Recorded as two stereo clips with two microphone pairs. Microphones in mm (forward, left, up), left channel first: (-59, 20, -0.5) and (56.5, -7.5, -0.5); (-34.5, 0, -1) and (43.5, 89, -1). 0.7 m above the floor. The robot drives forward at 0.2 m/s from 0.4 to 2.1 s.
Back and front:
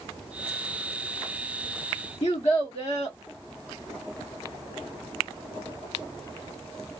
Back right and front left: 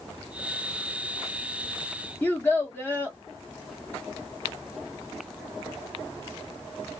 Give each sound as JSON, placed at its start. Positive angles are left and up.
{"t": 2.2, "sound": "a child speaking", "azimuth_deg": 155, "distance_m": 1.0}